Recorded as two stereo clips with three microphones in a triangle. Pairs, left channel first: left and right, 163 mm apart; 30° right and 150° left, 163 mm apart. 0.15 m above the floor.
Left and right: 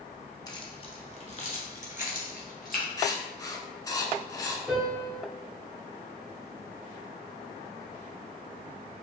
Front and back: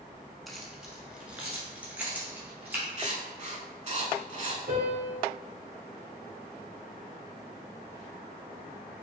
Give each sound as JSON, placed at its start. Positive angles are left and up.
{"t": 0.5, "sound": "keys jangling", "azimuth_deg": 60, "distance_m": 0.8}
{"t": 3.0, "sound": "writing", "azimuth_deg": 145, "distance_m": 0.6}
{"t": 4.7, "sound": "a piano", "azimuth_deg": -175, "distance_m": 1.6}